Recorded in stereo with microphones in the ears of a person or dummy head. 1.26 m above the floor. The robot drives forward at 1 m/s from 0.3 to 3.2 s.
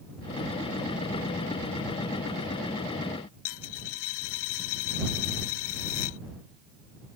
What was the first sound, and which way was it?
A dropped coin, 85° left.